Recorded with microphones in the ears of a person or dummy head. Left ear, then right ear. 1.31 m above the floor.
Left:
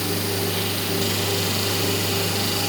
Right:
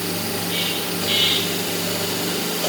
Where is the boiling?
I don't hear boiling.